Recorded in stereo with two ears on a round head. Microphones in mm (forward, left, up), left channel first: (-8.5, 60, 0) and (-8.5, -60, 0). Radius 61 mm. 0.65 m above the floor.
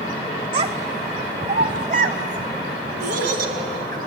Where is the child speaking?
40° right (ahead or behind), 1.6 m; by 4.0 s 70° right (ahead or behind), 4 m.